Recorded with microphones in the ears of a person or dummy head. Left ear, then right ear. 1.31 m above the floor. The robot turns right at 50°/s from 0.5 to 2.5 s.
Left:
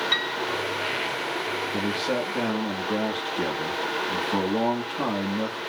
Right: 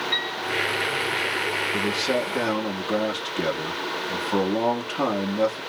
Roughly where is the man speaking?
Behind.